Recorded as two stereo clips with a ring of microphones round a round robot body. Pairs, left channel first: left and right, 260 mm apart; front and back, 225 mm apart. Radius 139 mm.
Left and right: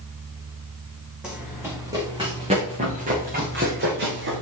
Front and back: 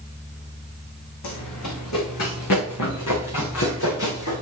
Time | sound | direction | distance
1.2 | running footsteps | 5° right | 3 m